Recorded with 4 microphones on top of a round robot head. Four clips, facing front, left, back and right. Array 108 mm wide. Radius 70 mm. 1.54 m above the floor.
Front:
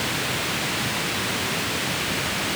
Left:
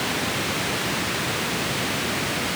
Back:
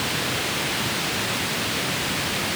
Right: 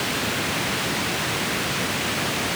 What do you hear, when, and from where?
Only background noise.